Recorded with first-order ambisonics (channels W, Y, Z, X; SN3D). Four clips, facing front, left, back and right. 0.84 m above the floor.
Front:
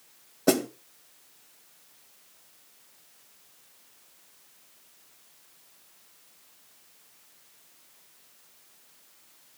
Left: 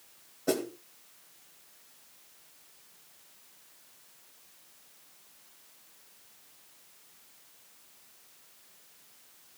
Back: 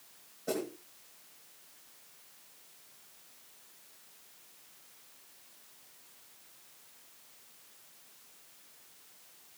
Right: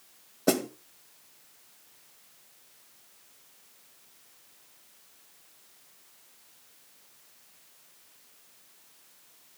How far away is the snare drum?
About 1.3 m.